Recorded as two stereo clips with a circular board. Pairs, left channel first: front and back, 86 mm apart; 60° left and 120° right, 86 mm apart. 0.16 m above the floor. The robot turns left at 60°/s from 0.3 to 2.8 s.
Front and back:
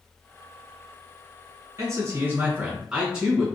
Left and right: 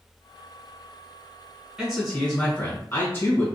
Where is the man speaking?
170° left, 1.9 m; by 3.5 s 105° left, 1.9 m.